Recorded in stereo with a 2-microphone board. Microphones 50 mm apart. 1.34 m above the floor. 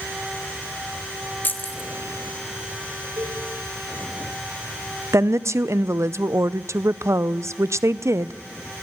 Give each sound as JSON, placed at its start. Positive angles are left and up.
{"t": 1.4, "sound": "keys jangling", "side_deg": 40, "distance_m": 1.4}
{"t": 3.2, "sound": "a cowbell", "side_deg": -75, "distance_m": 2.0}
{"t": 5.1, "sound": "a woman speaking", "side_deg": -75, "distance_m": 0.6}